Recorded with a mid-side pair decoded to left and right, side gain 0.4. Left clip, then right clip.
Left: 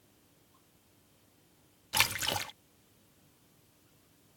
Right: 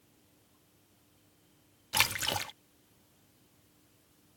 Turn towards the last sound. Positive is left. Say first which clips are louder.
# even
turn(degrees=-10)